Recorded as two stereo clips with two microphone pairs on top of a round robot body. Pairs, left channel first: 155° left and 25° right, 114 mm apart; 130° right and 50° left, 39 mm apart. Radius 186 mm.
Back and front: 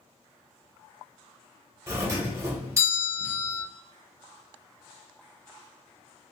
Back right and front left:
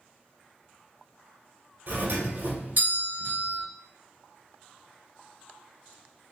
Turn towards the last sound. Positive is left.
turn(degrees=40)